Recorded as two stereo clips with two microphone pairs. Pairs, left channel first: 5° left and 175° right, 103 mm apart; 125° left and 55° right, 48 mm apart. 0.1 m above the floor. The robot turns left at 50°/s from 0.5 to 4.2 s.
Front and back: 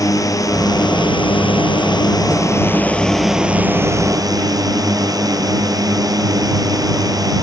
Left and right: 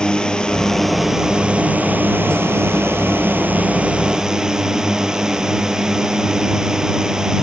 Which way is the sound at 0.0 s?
55° left.